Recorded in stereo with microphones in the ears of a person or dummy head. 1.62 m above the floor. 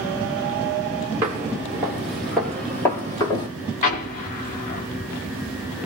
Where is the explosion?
30° left (ahead or behind), 0.9 m.